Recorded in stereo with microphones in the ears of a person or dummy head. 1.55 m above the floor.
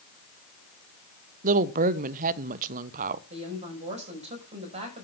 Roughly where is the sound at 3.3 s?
Right.